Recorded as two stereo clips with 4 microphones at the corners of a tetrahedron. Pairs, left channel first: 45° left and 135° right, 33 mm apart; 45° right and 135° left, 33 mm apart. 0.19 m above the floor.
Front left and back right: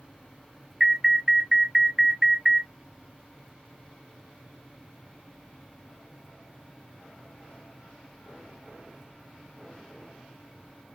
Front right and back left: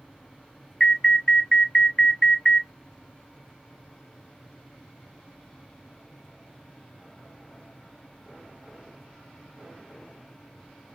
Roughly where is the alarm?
Right.